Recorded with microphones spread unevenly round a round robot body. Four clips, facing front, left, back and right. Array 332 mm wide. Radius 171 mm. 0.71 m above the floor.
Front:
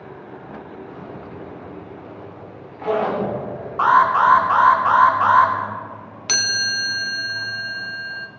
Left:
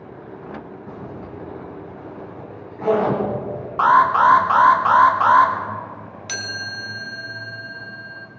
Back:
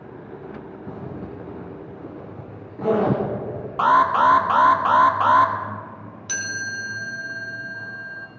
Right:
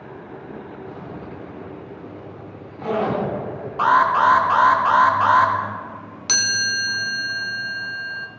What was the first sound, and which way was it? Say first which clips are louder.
A zipper: even, back 1 dB; straight behind.